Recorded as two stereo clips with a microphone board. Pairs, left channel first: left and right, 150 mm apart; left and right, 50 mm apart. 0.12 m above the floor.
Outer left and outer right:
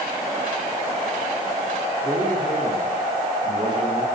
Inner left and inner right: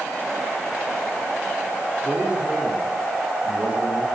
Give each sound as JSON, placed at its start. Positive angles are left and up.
{"t": 2.0, "sound": "a man speaking", "side_deg": -30, "distance_m": 7.5}